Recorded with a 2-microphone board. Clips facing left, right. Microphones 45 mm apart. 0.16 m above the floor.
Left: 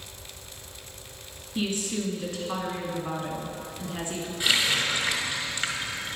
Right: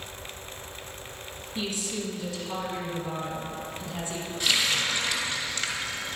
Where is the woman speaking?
35° left (ahead or behind), 1.9 m.